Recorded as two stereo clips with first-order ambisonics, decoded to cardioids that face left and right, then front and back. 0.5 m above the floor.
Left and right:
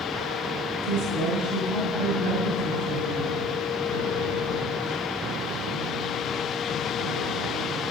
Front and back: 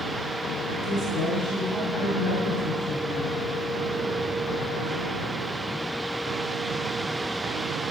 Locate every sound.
0.8 s a woman speaking: 65° right, 4.5 m